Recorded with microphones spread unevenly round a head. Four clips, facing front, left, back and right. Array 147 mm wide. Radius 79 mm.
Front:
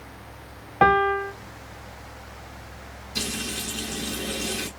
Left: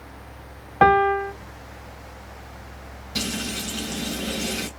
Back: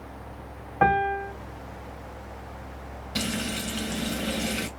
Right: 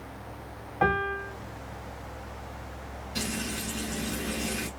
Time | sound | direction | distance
0.8 | a piano | 70° left | 1.1 m
3.1 | frying | 140° left | 2 m